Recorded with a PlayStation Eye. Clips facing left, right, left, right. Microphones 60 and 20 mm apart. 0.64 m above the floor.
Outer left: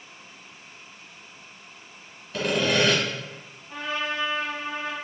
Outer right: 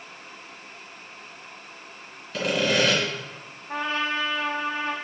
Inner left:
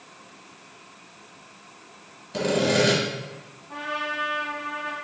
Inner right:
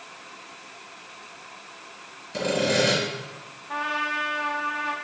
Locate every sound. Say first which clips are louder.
2.3 s sawing: even, inner left 1 dB; 5° left (ahead or behind), 1.3 m
3.7 s a trumpet: outer right 3 dB, inner right 3 dB; 55° right (ahead or behind), 0.6 m